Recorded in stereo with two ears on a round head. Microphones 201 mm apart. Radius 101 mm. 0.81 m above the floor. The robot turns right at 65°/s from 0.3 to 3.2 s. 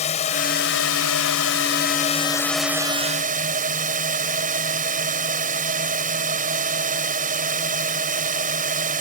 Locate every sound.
0.0 s a drone: 30° left; by 9.0 s 140° right